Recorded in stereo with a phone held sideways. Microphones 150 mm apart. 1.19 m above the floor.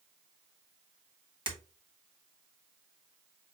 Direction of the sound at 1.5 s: 35° right (ahead or behind).